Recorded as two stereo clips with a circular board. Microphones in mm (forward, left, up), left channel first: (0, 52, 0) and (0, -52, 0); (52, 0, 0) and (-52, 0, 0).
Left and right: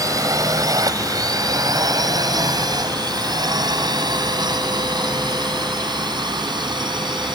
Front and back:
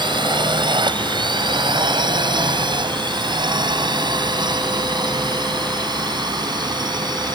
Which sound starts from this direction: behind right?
A drone, at 0.0 s.